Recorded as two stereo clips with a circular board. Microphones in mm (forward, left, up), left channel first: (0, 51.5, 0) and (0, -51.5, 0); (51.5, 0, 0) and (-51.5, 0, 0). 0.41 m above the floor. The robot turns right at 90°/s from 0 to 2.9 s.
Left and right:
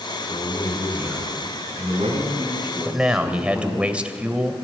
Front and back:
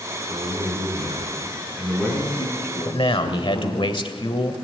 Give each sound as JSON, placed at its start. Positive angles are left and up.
{"t": 0.3, "sound": "a man speaking", "azimuth_deg": 125, "distance_m": 5.5}
{"t": 2.9, "sound": "a man speaking", "azimuth_deg": -20, "distance_m": 1.5}